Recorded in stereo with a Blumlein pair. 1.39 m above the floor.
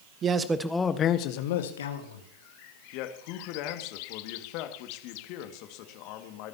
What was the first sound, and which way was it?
A man speaking, 25° right.